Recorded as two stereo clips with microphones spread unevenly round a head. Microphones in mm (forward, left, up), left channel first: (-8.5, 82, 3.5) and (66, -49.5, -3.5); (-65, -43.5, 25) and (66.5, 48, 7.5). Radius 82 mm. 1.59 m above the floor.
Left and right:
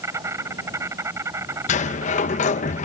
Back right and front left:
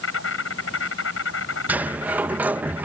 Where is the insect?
135° right.